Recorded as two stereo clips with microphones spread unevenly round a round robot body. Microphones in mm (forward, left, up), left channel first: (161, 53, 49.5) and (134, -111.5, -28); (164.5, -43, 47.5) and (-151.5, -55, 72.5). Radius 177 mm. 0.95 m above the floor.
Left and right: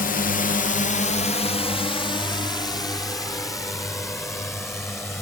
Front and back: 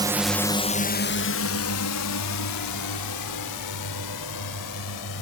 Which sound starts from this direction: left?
A drone, at 0.0 s.